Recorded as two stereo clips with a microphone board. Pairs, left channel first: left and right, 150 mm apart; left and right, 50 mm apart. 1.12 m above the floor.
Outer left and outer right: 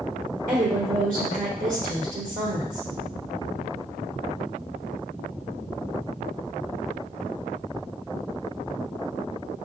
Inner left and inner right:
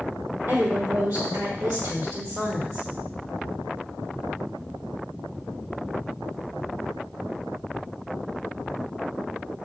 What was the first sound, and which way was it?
A woman speaking, 60° right (ahead or behind).